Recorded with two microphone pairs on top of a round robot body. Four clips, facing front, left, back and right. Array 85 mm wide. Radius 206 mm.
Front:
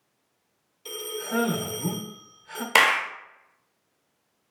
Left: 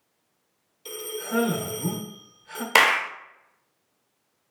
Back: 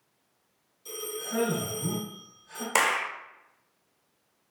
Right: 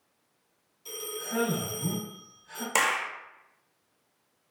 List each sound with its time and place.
0.8 s a man speaking: 50° left, 1.0 m
2.8 s a clap: 70° left, 0.6 m